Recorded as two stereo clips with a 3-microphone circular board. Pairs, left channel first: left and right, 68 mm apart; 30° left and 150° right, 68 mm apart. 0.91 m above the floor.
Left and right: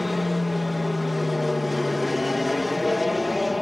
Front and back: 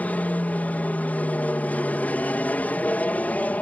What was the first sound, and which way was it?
An aircraft, straight ahead.